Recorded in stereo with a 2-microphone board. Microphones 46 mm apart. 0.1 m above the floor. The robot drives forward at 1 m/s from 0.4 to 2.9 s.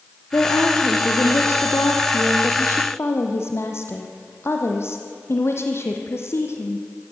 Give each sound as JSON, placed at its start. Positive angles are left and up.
{"t": 0.3, "sound": "a woman speaking", "side_deg": 60, "distance_m": 4.0}